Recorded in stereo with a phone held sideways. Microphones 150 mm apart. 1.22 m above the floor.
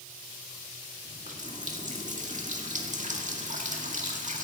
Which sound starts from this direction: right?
A running tap, at 1.1 s.